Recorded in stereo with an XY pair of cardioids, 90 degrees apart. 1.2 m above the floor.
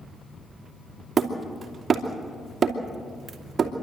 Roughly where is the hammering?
Ahead right.